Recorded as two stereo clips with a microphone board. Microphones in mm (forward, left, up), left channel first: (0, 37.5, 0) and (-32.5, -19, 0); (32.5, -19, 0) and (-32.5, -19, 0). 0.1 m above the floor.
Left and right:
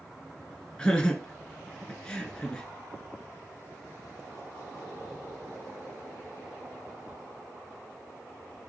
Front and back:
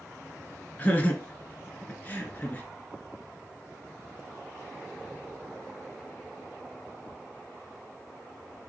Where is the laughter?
5° left, 1.3 m.